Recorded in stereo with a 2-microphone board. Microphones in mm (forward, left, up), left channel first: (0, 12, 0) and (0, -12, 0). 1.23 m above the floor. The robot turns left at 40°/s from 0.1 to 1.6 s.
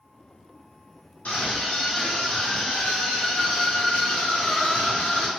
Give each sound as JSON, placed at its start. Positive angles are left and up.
{"t": 1.2, "sound": "a scream", "side_deg": 60, "distance_m": 1.1}